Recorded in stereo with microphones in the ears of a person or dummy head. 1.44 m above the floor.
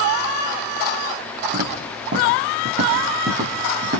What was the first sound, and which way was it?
Footsteps, 55° right (ahead or behind).